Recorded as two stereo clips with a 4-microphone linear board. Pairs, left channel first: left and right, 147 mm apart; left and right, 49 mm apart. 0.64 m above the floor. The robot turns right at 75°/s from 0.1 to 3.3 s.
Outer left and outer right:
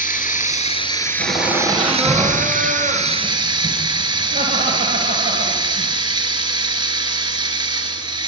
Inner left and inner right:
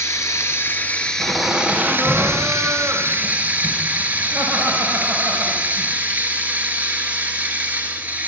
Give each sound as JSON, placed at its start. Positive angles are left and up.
{"t": 0.0, "sound": "running water", "azimuth_deg": 85, "distance_m": 1.4}
{"t": 1.2, "sound": "laughter", "azimuth_deg": 130, "distance_m": 2.5}